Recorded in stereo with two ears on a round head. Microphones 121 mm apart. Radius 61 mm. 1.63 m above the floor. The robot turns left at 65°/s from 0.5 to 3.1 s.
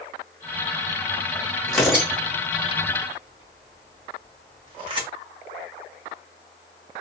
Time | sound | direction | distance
1.7 | tearing paper | 5° left (ahead or behind) | 1.2 m